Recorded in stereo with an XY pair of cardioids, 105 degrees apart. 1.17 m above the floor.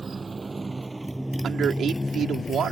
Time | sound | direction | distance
0.0 | a motorcycle | 30° right | ?
1.4 | a man speaking | 60° right | ?